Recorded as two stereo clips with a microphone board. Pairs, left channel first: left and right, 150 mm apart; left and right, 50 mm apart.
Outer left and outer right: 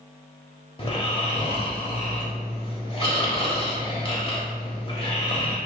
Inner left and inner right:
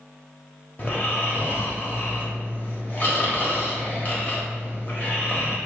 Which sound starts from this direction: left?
Snoring, at 0.8 s.